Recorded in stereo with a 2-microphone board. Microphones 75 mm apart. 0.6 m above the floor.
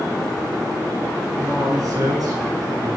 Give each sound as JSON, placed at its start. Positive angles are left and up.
{"t": 1.4, "sound": "a man speaking", "side_deg": -55, "distance_m": 6.0}